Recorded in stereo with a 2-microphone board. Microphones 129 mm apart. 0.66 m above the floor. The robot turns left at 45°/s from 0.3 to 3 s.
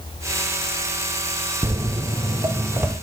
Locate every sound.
1.6 s footsteps: 30° right (ahead or behind), 0.7 m; by 2.9 s 15° right (ahead or behind), 1.1 m